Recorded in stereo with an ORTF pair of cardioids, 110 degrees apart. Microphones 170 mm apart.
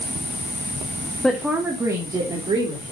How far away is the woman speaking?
About 1.3 m.